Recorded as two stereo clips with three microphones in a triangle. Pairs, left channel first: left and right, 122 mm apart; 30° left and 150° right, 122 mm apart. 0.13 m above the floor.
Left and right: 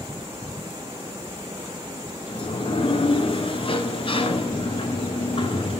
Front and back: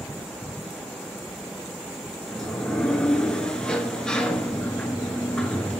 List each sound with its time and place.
2.3 s a sliding door: 110° left, 0.8 m